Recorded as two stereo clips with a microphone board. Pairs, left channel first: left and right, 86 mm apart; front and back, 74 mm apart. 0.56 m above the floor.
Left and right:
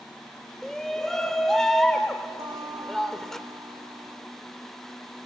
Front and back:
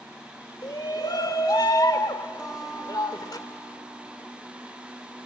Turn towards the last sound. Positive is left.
turn(degrees=-100)